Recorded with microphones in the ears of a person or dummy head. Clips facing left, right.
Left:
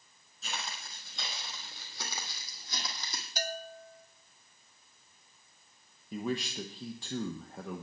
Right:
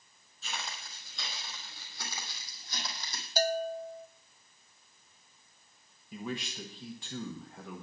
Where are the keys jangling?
I don't hear keys jangling.